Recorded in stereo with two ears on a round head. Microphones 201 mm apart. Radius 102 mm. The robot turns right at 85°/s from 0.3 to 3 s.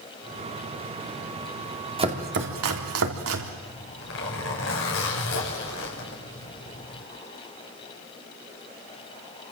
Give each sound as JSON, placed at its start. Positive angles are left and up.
{"t": 2.0, "sound": "chopping", "side_deg": -25, "distance_m": 3.5}
{"t": 3.6, "sound": "a zipper", "side_deg": 70, "distance_m": 6.5}